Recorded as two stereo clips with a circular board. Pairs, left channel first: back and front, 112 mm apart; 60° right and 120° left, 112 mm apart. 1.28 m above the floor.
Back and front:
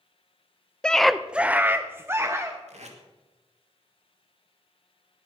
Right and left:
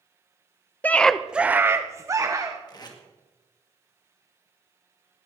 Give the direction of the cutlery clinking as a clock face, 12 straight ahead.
I don't hear cutlery clinking.